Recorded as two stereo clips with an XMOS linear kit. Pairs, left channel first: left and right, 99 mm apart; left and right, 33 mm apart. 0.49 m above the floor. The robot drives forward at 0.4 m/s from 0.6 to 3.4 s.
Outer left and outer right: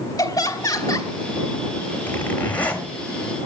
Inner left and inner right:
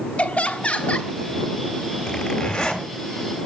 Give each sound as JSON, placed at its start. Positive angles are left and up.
{"t": 0.2, "sound": "laughter", "side_deg": 35, "distance_m": 2.5}
{"t": 2.1, "sound": "a zipper", "side_deg": 15, "distance_m": 3.0}